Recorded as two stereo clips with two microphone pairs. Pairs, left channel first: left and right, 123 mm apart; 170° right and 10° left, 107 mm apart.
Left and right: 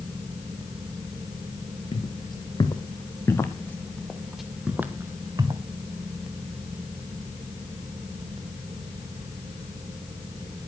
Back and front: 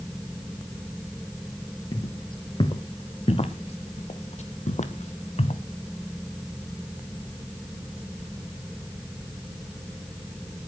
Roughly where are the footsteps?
Behind left.